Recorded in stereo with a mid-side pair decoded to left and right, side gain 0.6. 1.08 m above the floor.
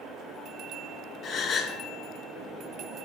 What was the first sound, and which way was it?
A gasp, 40° left.